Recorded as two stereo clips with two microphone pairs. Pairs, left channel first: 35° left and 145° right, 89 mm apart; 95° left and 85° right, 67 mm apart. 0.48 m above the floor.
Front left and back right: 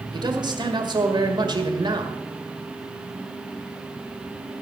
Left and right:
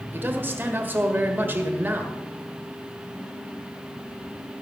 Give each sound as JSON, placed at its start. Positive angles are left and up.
{"t": 0.1, "sound": "a man speaking", "azimuth_deg": -140, "distance_m": 1.7}